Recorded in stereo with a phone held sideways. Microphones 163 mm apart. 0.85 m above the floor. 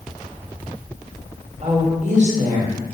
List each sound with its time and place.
1.6 s a woman speaking: 45° right (ahead or behind), 0.9 m